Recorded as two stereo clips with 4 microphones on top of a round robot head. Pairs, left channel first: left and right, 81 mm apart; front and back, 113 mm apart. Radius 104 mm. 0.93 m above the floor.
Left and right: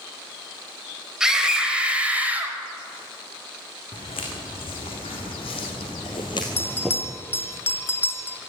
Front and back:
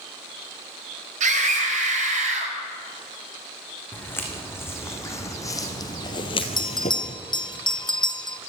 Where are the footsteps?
70° left, 4 m; by 7.2 s 25° right, 1.2 m.